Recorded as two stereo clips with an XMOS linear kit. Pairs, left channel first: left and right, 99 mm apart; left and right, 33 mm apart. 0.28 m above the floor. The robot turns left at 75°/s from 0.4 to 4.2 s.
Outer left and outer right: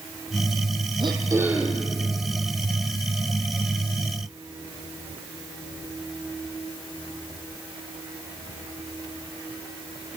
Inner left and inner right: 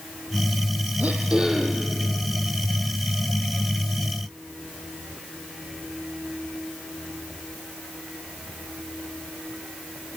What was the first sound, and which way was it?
Throat clearing, 125° right.